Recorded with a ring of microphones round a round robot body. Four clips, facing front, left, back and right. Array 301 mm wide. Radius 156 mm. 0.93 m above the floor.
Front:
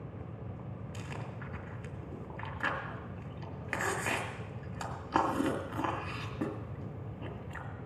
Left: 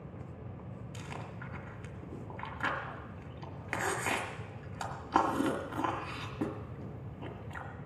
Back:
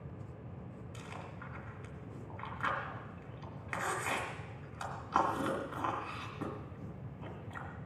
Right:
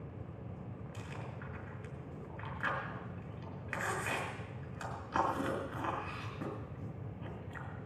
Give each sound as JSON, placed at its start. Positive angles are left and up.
{"t": 0.9, "sound": "chewing", "azimuth_deg": 45, "distance_m": 2.0}